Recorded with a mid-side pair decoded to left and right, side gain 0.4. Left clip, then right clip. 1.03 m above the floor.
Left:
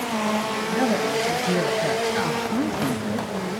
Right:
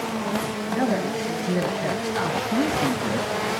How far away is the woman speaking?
About 1.1 m.